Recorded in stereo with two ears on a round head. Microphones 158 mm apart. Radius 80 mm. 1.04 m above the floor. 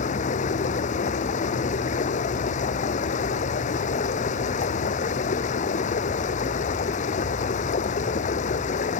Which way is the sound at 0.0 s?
45° left (ahead or behind).